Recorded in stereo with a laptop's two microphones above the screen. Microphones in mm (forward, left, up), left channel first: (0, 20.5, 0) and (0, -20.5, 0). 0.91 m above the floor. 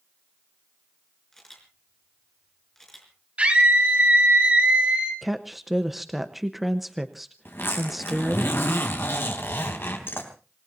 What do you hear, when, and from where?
1.3 s a camera shutter: 10° left (ahead or behind), 4.5 m
3.4 s a scream: 30° right (ahead or behind), 4 m
5.2 s a woman speaking: 5° right (ahead or behind), 0.8 m
7.5 s a zipper: 70° left (ahead or behind), 3.5 m